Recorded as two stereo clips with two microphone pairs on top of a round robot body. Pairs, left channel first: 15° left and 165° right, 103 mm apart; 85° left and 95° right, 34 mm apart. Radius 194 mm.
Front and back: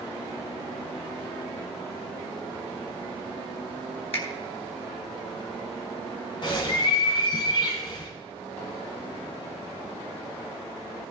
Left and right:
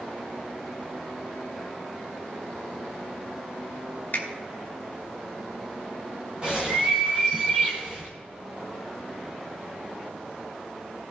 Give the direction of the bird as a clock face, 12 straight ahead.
1 o'clock.